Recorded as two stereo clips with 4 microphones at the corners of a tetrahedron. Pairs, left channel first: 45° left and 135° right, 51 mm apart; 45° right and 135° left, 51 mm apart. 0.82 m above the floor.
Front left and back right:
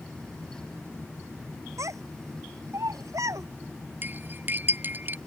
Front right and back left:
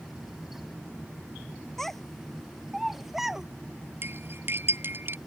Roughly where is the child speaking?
Behind right.